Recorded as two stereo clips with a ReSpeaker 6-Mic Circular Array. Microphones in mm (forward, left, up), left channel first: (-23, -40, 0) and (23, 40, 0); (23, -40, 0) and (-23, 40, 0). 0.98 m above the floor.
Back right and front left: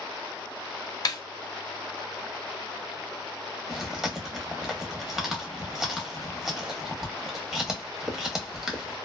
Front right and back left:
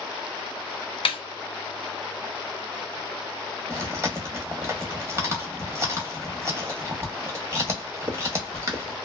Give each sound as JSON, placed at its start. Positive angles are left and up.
{"t": 1.1, "sound": "a snare drum", "azimuth_deg": -75, "distance_m": 0.5}
{"t": 3.7, "sound": "chewing", "azimuth_deg": 140, "distance_m": 0.8}